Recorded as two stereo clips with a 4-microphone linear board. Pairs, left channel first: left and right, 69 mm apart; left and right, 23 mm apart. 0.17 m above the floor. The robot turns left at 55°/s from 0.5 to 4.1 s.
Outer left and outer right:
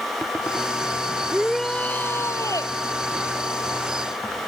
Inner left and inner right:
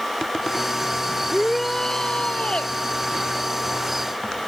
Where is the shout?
170° right; by 2.8 s 110° left.